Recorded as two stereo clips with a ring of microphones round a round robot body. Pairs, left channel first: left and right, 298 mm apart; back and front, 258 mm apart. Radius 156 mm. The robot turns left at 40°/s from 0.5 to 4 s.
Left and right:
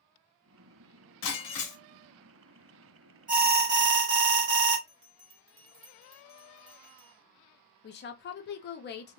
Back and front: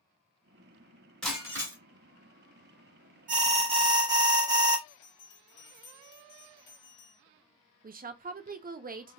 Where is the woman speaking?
45° left, 0.6 m.